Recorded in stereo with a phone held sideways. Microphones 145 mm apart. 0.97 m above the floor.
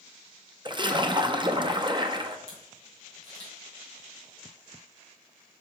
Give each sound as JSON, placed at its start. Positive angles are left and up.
{"t": 0.7, "sound": "a splash", "side_deg": -30, "distance_m": 0.6}
{"t": 2.5, "sound": "a camera shutter", "side_deg": -25, "distance_m": 3.5}